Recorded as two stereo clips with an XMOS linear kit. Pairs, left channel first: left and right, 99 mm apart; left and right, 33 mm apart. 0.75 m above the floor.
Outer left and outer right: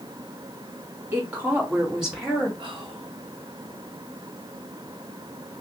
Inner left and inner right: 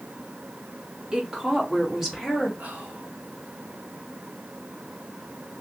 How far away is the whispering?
About 1.4 m.